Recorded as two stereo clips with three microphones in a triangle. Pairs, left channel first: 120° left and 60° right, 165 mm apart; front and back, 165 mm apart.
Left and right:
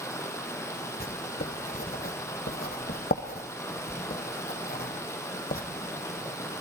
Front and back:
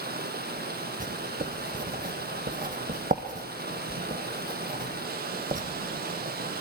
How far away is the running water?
About 3 m.